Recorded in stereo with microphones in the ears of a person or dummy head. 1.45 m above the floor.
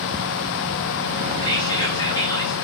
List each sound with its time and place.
1.4 s whispering: 25° left (ahead or behind), 1.1 m